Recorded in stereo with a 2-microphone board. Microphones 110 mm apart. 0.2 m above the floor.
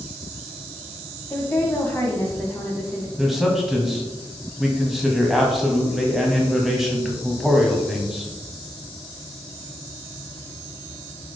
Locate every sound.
1.3 s a woman speaking: 20° left (ahead or behind), 1.0 m
3.2 s a man speaking: centre (ahead or behind), 1.4 m